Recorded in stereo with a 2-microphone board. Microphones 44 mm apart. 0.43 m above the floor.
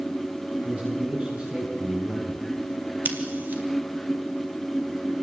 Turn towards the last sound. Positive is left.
turn(degrees=-40)  # may be behind; listen again after turning